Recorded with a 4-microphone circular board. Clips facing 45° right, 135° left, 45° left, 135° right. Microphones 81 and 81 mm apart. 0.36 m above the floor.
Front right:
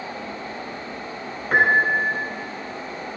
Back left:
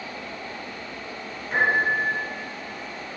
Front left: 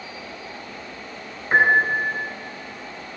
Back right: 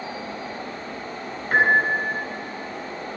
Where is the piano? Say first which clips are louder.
Front right 4 dB, front left 1 dB; 20° right, 2.5 m.